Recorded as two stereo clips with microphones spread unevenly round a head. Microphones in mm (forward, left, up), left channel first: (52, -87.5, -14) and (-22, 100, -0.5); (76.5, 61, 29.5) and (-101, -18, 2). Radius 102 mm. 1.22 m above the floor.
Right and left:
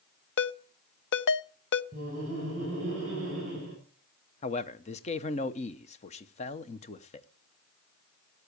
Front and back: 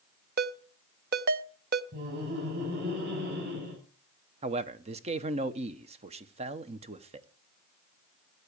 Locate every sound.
0.4 s a ringtone: 105° right, 0.6 m
1.9 s laughter: 170° left, 6.5 m
4.4 s a man speaking: 115° right, 0.9 m